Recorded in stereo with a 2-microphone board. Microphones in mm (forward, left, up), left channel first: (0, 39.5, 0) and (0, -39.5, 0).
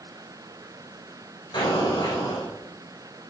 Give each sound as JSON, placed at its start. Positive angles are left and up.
{"t": 1.5, "sound": "an explosion", "side_deg": 70, "distance_m": 6.0}